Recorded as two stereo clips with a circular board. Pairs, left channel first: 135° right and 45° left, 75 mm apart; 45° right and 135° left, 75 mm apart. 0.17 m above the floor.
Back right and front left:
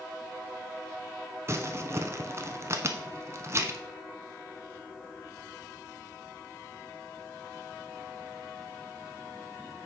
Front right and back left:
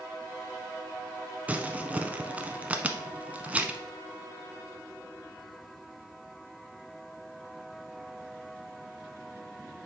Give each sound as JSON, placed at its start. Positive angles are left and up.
{"t": 1.5, "sound": "crumpling", "azimuth_deg": 70, "distance_m": 0.7}